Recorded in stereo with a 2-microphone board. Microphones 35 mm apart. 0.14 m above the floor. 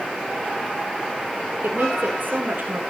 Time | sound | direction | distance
1.6 | a woman speaking | 80° right | 9 m